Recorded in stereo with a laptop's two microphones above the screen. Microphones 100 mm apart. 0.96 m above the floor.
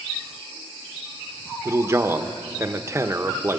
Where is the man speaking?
25° right (ahead or behind), 0.8 m.